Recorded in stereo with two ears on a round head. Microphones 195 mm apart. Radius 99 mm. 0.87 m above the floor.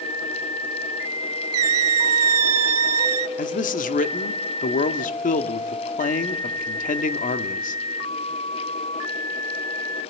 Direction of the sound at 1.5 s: 80° right.